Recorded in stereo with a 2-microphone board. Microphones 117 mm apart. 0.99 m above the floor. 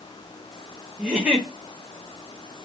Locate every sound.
1.0 s a giggle: 10° right (ahead or behind), 0.7 m